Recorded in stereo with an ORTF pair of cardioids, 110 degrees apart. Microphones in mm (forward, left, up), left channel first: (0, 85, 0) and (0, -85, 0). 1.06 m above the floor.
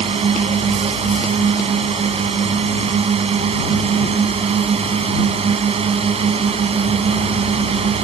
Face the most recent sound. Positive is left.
turn(degrees=-35)